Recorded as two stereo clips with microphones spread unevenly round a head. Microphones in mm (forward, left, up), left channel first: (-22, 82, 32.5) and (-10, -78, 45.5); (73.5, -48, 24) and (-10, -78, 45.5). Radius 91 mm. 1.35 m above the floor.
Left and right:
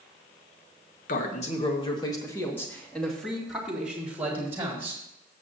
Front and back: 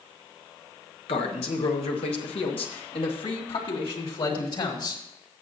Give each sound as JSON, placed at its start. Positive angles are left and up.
{"t": 1.1, "sound": "a man speaking", "azimuth_deg": 50, "distance_m": 1.5}